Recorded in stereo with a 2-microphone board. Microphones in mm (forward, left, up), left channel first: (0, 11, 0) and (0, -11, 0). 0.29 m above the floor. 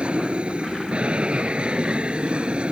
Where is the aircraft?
60° right (ahead or behind); by 2.7 s 55° right (ahead or behind).